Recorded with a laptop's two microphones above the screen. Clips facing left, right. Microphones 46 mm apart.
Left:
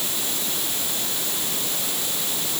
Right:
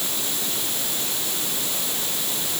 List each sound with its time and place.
Only background noise.